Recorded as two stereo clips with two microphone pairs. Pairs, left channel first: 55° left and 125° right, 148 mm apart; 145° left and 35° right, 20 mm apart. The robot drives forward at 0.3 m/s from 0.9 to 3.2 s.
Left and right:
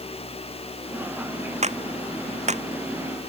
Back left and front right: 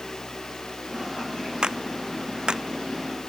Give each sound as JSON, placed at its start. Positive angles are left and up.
{"t": 1.6, "sound": "a clap", "azimuth_deg": -85}